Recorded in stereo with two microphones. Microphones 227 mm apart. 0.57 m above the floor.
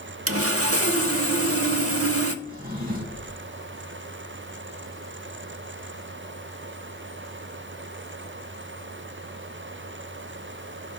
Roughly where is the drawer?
Right.